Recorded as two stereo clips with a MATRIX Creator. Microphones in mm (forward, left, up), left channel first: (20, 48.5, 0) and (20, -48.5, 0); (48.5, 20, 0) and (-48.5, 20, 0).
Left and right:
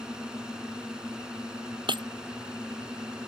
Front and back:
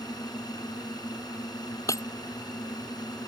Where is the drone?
10° right.